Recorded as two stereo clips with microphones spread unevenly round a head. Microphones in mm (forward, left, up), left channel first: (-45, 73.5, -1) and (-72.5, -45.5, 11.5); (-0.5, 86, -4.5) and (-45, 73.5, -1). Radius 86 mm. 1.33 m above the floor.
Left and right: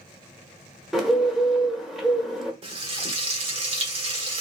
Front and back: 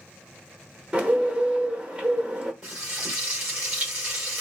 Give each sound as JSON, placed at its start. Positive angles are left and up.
{"t": 0.9, "sound": "a bird", "azimuth_deg": 175, "distance_m": 1.1}
{"t": 2.6, "sound": "frying", "azimuth_deg": -105, "distance_m": 1.3}